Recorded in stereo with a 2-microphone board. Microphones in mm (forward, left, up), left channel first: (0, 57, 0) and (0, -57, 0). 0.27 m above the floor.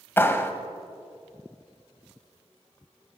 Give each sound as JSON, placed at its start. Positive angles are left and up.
{"t": 0.2, "sound": "a clap", "side_deg": 20, "distance_m": 1.1}